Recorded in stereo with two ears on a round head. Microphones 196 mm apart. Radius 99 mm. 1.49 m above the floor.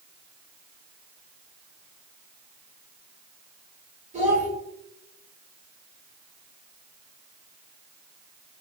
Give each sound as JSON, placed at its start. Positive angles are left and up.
{"t": 4.1, "sound": "a child speaking", "side_deg": -35, "distance_m": 1.6}